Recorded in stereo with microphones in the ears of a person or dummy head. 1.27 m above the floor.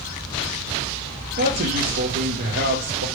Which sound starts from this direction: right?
A man speaking, at 1.4 s.